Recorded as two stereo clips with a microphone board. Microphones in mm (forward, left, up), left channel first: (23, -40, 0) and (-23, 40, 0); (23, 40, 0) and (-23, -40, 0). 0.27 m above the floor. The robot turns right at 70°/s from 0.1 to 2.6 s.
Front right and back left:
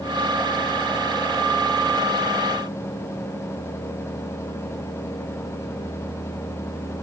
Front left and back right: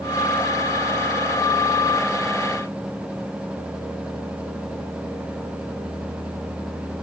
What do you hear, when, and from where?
Only background noise.